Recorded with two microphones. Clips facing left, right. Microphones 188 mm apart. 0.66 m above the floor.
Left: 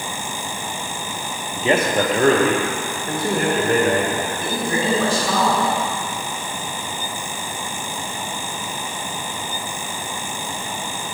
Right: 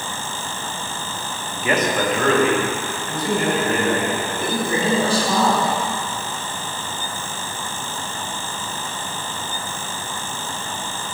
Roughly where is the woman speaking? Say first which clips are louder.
Right 3 dB; right.